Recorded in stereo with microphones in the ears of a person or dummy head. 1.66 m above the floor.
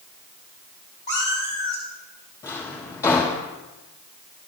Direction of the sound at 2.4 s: 15° left (ahead or behind).